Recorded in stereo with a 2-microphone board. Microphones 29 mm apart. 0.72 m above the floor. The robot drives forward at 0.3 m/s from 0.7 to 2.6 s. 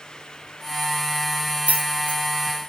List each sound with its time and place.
1.7 s keys jangling: 55° right (ahead or behind), 0.7 m; by 2.2 s 45° right (ahead or behind), 0.8 m